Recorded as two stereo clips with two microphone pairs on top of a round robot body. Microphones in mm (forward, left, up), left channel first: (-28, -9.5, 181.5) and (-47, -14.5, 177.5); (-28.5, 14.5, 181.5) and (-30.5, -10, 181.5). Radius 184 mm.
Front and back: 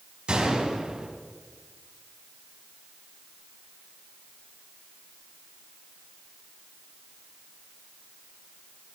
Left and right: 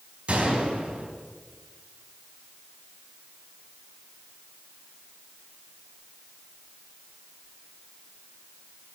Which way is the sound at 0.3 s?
130° right.